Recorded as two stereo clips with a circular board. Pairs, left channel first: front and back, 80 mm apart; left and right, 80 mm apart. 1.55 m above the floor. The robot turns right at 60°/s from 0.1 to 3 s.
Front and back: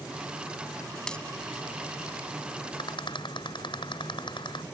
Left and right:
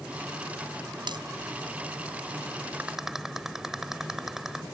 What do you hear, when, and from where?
1.1 s a dropped coin: 80° right; by 1.2 s 70° right
2.8 s a rattle: 20° right; by 4.6 s 5° right